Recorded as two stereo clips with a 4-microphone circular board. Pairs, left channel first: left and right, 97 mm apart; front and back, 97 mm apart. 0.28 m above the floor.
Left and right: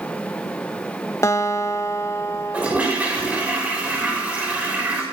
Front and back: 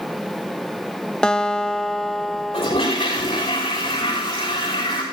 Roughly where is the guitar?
Left.